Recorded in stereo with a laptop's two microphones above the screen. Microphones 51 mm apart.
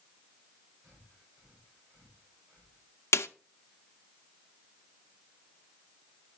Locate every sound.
0.8 s breathing: 60° right (ahead or behind), 5.5 m
3.1 s a snare drum: 65° left (ahead or behind), 0.6 m